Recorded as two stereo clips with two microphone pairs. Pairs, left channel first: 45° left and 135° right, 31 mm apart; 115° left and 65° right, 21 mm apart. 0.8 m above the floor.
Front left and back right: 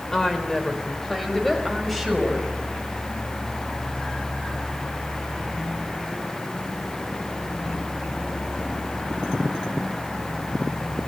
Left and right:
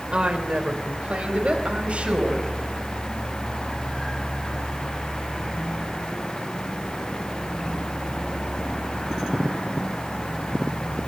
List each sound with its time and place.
0.1 s a woman speaking: 30° right, 3.5 m; by 2.5 s 45° right, 6 m